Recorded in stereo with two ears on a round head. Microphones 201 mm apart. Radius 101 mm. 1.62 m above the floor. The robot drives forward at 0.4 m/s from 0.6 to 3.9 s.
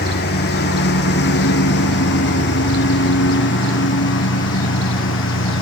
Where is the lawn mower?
50° left (ahead or behind); by 5.6 s 65° left (ahead or behind).